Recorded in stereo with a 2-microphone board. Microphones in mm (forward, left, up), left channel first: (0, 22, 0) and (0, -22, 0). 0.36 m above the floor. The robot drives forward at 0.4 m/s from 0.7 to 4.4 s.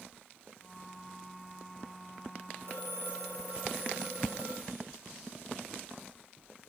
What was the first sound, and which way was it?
A phone ringing, 60° right (ahead or behind).